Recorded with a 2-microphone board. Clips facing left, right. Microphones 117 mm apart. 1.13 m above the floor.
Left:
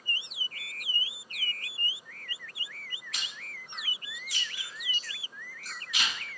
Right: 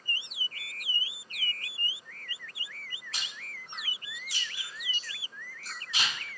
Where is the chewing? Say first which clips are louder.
Right 1 dB; 35° right (ahead or behind), 3.5 m.